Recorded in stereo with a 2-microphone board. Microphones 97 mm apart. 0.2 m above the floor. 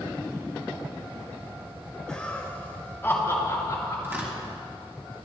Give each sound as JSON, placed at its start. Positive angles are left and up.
{"t": 2.1, "sound": "laughter", "side_deg": 10, "distance_m": 2.0}
{"t": 4.0, "sound": "tearing paper", "side_deg": -20, "distance_m": 2.0}